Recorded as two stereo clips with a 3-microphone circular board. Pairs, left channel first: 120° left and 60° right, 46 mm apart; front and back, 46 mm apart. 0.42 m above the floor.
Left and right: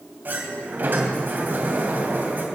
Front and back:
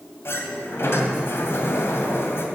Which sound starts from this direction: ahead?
A sliding door, at 0.2 s.